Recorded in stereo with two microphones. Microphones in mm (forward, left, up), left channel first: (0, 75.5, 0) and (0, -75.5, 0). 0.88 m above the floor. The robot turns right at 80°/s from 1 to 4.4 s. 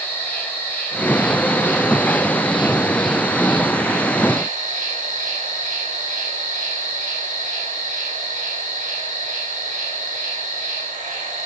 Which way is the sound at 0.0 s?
10° left.